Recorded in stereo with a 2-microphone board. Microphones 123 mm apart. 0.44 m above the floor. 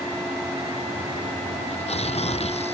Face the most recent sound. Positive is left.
turn(degrees=60)  # may be behind; listen again after turning